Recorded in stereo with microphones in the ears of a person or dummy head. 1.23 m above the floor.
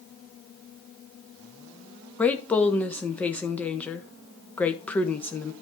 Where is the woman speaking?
Centre (ahead or behind), 1.3 m.